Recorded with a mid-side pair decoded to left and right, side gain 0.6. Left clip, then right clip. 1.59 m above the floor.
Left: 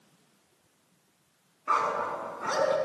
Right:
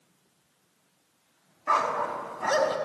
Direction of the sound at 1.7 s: 60° right.